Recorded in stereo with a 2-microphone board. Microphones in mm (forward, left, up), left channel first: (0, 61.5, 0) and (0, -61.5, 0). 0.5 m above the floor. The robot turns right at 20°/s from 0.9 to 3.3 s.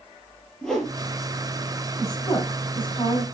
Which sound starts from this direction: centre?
A whoosh, at 0.6 s.